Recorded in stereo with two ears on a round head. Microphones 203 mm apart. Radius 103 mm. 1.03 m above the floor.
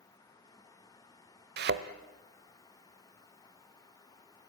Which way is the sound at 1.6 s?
45° right (ahead or behind).